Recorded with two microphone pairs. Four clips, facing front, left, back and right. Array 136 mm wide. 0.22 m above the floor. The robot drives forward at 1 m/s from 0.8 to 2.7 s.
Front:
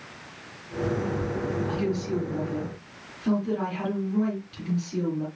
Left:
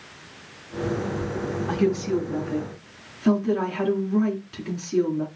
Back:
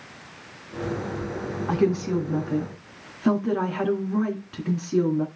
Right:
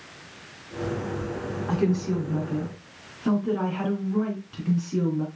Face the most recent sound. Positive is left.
turn(degrees=180)